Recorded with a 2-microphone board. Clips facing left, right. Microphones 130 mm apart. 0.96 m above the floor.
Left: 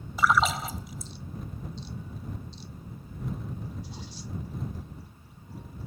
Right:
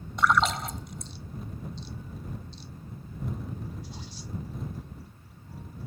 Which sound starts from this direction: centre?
A splash, at 0.2 s.